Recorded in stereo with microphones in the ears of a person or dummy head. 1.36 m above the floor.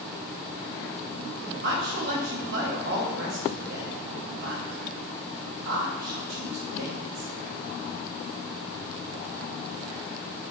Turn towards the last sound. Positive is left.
turn(degrees=-55)  # may be behind; listen again after turning